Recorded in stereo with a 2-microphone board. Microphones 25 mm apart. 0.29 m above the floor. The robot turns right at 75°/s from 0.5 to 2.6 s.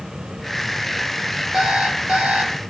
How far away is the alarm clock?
About 3.5 m.